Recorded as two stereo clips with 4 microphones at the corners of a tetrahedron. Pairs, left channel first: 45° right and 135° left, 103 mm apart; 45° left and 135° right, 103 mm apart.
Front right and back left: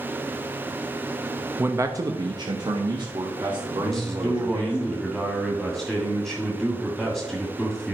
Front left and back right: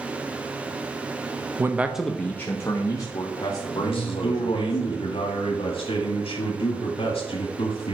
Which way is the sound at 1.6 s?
175° right.